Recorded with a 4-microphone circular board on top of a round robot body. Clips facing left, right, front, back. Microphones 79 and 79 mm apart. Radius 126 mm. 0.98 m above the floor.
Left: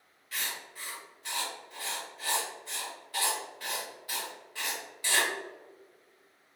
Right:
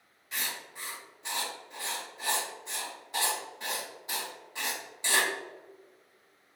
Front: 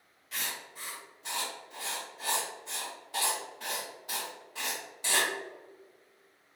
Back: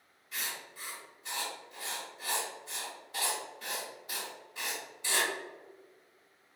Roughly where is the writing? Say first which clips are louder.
Right 1 dB, front 2 dB; ahead right.